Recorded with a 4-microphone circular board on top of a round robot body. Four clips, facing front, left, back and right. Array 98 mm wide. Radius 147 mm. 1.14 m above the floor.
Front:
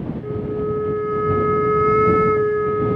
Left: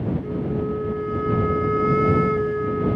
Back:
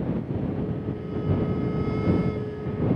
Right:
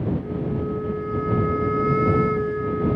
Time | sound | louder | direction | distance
0.2 | a flute | left 1 dB, front 6 dB | straight ahead | ?